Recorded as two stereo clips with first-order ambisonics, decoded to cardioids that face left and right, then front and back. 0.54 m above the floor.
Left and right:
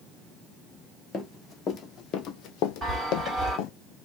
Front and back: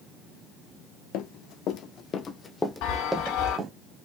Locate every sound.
1.1 s running footsteps: 20° left, 1.3 m; by 3.7 s 115° left, 1.2 m
2.8 s a chime: 20° right, 2.5 m